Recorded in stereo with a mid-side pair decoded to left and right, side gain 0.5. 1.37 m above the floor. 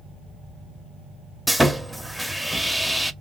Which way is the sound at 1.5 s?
Straight ahead.